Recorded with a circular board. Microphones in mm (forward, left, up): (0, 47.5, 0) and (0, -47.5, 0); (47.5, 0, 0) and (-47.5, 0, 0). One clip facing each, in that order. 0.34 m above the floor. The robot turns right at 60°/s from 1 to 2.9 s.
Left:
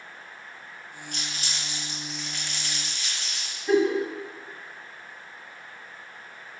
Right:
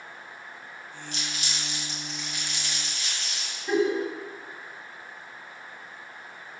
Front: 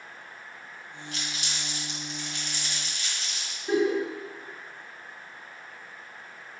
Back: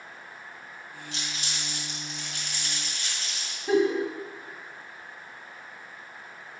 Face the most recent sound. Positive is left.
turn(degrees=180)